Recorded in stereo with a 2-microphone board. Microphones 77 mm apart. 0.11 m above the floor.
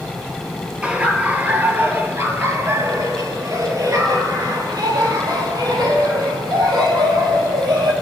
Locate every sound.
0.8 s laughter: 15° right (ahead or behind), 2.5 m; by 7.9 s 70° right (ahead or behind), 4.5 m